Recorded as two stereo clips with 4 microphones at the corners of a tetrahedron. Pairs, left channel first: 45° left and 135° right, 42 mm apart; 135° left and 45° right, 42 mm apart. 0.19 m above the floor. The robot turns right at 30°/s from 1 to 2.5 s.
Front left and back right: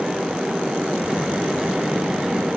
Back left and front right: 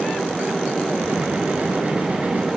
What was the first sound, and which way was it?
Only background noise.